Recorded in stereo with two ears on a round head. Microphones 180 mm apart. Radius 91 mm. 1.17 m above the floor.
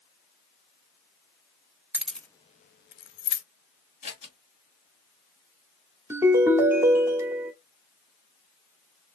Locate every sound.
1.9 s keys jangling: 10° right (ahead or behind), 0.7 m; by 3.4 s 65° left (ahead or behind), 0.9 m
4.0 s scissors: 35° left (ahead or behind), 2 m
6.1 s a ringtone: 10° right (ahead or behind), 1.0 m